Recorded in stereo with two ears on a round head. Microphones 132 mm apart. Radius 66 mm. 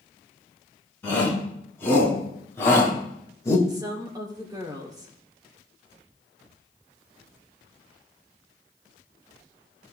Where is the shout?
15° left (ahead or behind), 5 m; by 3.6 s 20° left (ahead or behind), 2 m.